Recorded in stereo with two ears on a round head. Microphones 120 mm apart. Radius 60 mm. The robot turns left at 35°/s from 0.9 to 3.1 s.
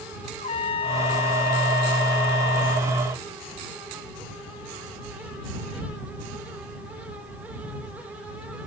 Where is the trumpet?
135° left; by 2.9 s 65° left.